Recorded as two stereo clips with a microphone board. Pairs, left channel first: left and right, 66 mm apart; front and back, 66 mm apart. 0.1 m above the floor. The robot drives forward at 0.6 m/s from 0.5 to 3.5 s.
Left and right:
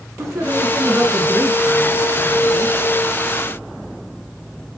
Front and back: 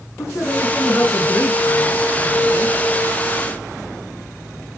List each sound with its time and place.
0.2 s a woman speaking: 45° right, 6.5 m; by 2.8 s 55° right, 5.5 m